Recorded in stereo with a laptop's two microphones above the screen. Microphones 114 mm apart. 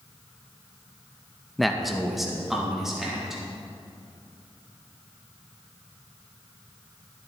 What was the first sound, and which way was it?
A man speaking, centre (ahead or behind).